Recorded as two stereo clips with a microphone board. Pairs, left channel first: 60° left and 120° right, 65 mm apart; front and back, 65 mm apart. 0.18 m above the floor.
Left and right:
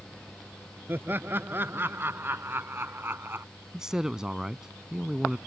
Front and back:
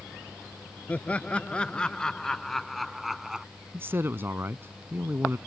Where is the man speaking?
165° left.